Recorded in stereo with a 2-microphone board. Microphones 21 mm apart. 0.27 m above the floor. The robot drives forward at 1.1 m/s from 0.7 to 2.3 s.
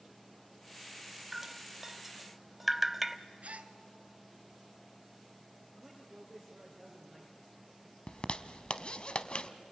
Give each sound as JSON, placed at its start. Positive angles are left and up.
{"t": 1.3, "sound": "dripping", "side_deg": -10, "distance_m": 0.8}
{"t": 3.4, "sound": "a gasp", "side_deg": -80, "distance_m": 1.0}
{"t": 5.7, "sound": "a man speaking", "side_deg": 5, "distance_m": 5.0}
{"t": 8.1, "sound": "a zipper", "side_deg": 50, "distance_m": 0.9}